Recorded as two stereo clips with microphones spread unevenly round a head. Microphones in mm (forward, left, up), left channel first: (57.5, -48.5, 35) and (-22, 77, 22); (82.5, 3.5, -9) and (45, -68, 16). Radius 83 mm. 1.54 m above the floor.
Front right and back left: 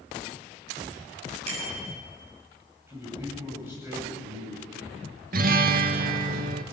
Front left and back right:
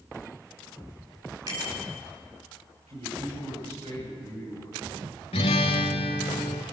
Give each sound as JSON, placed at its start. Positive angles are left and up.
{"t": 1.5, "sound": "a bicycle bell", "azimuth_deg": 175, "distance_m": 7.0}
{"t": 2.9, "sound": "a man speaking", "azimuth_deg": -160, "distance_m": 9.5}
{"t": 5.3, "sound": "a guitar", "azimuth_deg": 95, "distance_m": 1.3}